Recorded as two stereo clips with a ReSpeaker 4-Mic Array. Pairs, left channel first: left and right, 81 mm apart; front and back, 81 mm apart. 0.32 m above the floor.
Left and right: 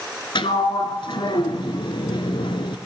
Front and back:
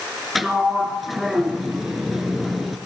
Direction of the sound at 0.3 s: 90° left.